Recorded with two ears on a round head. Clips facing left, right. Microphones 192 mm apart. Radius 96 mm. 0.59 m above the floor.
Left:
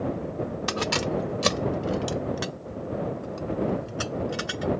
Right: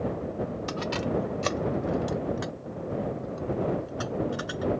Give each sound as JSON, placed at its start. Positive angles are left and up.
{"t": 0.7, "sound": "keys jangling", "side_deg": 70}